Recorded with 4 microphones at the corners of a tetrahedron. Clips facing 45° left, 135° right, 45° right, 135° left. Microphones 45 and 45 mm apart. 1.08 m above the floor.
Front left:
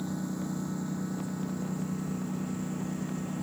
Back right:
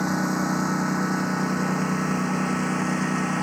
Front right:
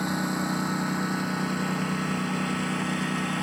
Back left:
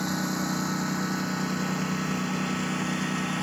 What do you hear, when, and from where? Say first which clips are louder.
0.0 s a lawn mower: back right 11 dB, front right 1 dB; 125° right; by 3.4 s 130° right